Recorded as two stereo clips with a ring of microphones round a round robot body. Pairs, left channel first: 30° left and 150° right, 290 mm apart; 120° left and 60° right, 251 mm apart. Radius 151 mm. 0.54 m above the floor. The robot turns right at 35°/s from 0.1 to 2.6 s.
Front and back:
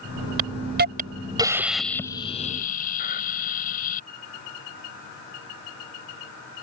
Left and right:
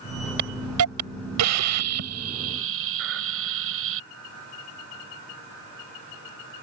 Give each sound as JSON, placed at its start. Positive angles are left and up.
{"t": 0.4, "sound": "a hiss", "azimuth_deg": -110}